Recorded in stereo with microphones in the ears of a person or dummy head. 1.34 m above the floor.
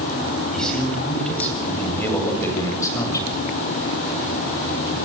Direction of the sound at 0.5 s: 5° left (ahead or behind).